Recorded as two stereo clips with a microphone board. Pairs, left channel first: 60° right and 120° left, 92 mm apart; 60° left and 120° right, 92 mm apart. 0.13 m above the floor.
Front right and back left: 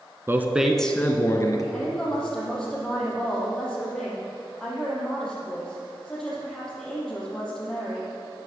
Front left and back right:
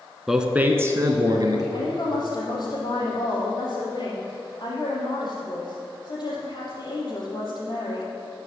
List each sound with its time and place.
0.3 s a man speaking: 155° left, 1.3 m; by 1.6 s 95° right, 1.8 m
1.7 s a woman speaking: 25° left, 4.5 m